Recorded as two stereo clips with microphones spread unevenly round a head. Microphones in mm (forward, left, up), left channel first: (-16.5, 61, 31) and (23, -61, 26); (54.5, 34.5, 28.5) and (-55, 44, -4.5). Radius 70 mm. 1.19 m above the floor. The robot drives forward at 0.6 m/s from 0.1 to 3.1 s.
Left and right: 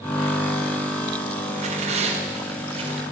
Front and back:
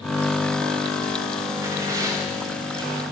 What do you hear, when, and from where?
1.6 s tearing paper: 115° right, 4 m; by 3.0 s 125° right, 4 m